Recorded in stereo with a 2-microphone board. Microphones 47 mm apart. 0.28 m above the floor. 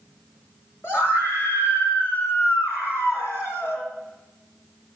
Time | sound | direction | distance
0.8 | a scream | 60° left (ahead or behind) | 3.5 m